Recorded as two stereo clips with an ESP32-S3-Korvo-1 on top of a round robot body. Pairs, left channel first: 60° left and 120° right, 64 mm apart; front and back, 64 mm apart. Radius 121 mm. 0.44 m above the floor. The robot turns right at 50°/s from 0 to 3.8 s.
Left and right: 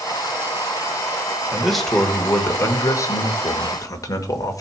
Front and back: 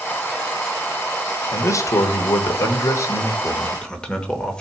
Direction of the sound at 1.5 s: 40° right.